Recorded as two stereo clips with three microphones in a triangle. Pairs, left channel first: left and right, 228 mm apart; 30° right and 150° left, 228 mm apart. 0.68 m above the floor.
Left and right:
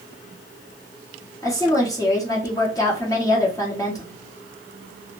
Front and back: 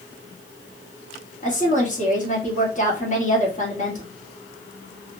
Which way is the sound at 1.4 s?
15° left.